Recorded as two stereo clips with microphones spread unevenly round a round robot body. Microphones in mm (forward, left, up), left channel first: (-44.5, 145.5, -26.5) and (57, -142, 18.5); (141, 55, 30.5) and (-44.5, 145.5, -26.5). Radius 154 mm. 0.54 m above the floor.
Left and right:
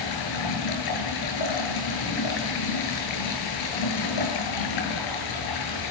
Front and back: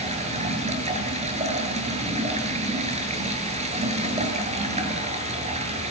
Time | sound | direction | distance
0.0 | running water | 95° left | 9 m